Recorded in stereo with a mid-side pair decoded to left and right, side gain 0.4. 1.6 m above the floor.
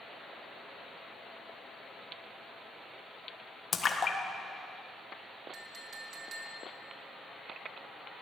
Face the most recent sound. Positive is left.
turn(degrees=-55)